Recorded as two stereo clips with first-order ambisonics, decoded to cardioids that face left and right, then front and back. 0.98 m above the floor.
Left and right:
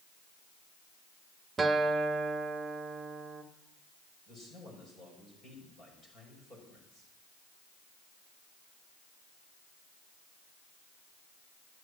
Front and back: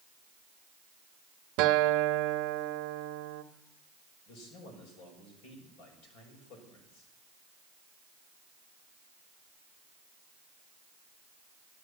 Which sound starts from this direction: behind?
A guitar, at 1.6 s.